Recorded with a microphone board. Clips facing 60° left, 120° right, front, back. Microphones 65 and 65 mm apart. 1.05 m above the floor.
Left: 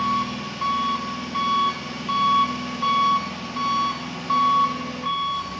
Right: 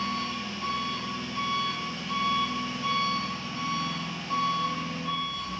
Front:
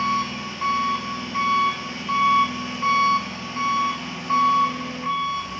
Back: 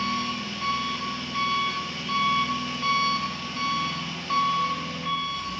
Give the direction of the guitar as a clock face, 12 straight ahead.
No guitar in this recording.